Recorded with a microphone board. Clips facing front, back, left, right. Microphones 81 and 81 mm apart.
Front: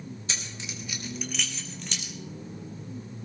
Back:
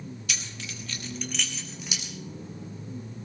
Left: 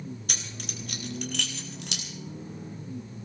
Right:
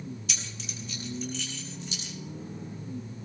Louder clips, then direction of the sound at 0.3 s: Even, left 1 dB; 55° left.